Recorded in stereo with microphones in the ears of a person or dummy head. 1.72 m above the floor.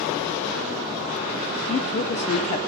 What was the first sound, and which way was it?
A woman speaking, 40° left (ahead or behind).